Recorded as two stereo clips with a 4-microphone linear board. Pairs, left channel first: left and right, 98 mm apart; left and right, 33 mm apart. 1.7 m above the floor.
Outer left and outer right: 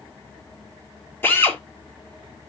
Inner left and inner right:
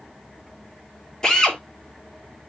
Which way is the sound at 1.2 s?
20° left (ahead or behind).